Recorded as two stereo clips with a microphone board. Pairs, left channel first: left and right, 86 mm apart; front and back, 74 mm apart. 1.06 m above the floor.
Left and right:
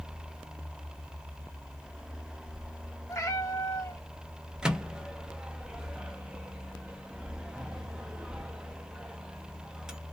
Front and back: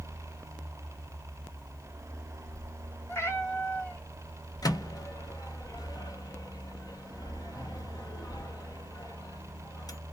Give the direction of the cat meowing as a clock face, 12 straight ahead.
11 o'clock.